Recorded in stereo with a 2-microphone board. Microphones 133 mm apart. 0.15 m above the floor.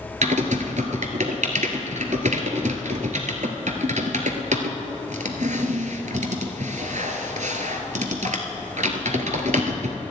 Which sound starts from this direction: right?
Typing on a keyboard, at 0.2 s.